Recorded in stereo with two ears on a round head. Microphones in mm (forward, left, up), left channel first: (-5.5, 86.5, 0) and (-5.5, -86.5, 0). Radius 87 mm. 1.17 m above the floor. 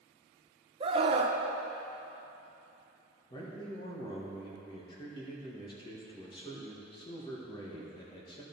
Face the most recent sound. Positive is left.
turn(degrees=25)  # may be behind; listen again after turning